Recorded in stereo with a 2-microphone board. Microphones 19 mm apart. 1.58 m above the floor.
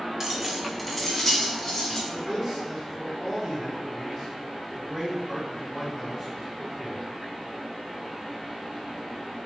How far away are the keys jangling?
About 0.6 m.